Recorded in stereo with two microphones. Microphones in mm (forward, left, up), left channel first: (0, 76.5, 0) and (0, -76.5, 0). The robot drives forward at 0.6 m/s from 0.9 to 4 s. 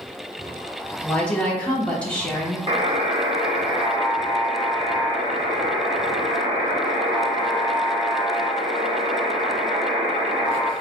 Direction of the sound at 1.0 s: 5° left (ahead or behind).